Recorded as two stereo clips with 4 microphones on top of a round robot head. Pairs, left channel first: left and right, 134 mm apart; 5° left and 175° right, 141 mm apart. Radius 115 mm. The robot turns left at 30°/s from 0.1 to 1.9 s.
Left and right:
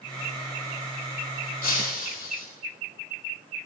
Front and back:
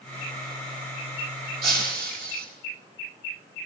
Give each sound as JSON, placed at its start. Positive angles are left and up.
{"t": 1.6, "sound": "breaking glass", "azimuth_deg": -165, "distance_m": 3.5}